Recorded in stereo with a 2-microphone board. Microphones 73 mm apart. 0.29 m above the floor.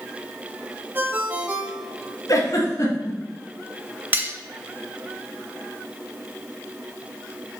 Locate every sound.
0.9 s a ringtone: 25° right (ahead or behind), 0.9 m
2.3 s a giggle: 50° left (ahead or behind), 2.0 m
4.1 s cutlery clinking: 30° right (ahead or behind), 0.6 m